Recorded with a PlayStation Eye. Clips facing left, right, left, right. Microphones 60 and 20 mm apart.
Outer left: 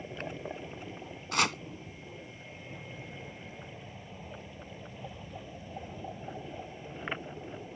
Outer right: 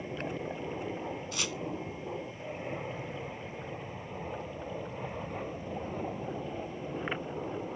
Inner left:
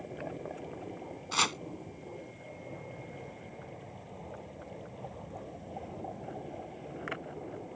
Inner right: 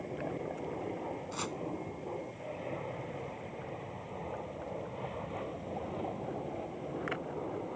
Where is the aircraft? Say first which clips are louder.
Outer right 3 dB, inner right 2 dB; 45° right (ahead or behind); by 7.8 s 55° right (ahead or behind).